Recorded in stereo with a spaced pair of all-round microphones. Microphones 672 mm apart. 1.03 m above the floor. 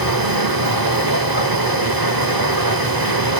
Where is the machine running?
35° right (ahead or behind), 0.9 m.